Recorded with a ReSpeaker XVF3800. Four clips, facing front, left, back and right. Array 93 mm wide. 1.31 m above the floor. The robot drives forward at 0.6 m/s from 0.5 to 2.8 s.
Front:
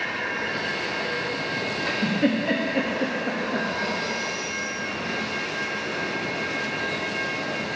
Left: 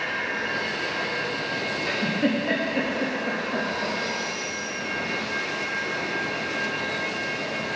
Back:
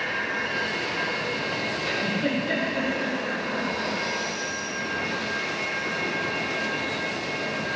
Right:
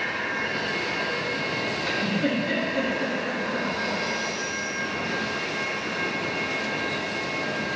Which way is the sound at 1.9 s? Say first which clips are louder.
Left 2 dB, front 5 dB; 30° left.